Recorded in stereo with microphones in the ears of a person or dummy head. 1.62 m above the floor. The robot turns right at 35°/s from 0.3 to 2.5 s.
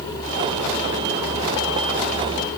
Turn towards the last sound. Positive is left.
No sound to turn to.